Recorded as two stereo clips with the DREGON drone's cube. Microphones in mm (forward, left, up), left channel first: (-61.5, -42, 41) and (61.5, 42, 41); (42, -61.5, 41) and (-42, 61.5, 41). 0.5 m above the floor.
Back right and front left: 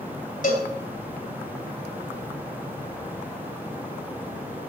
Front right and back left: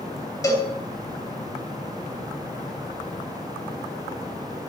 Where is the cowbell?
125° right, 3 m.